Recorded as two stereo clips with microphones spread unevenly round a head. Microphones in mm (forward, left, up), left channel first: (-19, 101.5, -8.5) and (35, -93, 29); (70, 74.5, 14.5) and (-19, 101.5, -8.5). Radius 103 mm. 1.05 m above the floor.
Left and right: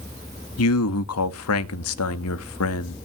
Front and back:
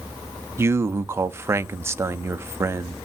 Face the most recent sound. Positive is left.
turn(degrees=100)